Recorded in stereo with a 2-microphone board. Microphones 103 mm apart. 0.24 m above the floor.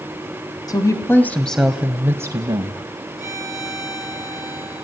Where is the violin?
35° left (ahead or behind), 4 m.